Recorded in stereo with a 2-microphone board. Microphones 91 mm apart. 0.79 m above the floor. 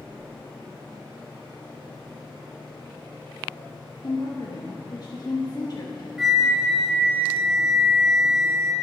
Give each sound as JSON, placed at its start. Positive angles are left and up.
{"t": 4.0, "sound": "a woman speaking", "side_deg": 45, "distance_m": 1.1}
{"t": 6.2, "sound": "a flute", "side_deg": -5, "distance_m": 1.6}